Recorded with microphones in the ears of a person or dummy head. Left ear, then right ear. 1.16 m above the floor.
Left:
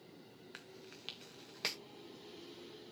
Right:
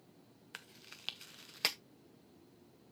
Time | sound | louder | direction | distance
0.5 | chewing | right 3 dB | 25° right (ahead or behind) | 0.6 m